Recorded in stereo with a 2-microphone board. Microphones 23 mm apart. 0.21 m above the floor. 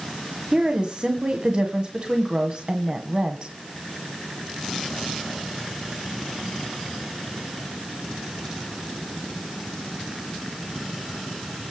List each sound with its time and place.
0.5 s a woman speaking: 35° right (ahead or behind), 1.8 m